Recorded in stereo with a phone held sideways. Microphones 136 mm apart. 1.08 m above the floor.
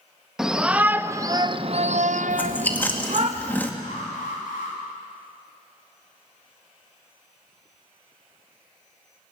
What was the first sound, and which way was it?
A shout, 5° right (ahead or behind).